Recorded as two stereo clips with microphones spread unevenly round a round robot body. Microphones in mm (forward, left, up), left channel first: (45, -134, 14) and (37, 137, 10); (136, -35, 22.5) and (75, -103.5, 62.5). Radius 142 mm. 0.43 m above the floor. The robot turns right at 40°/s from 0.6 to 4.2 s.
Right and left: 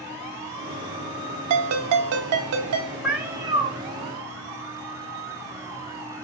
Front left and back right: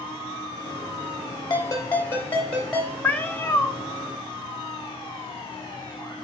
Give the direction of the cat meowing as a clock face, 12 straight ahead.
12 o'clock.